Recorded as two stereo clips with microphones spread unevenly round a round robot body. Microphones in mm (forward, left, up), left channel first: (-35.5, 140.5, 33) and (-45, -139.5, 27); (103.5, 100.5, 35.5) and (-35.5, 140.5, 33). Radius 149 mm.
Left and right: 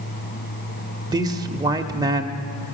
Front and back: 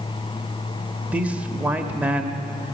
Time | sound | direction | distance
1.1 | a man speaking | 135° right | 0.9 m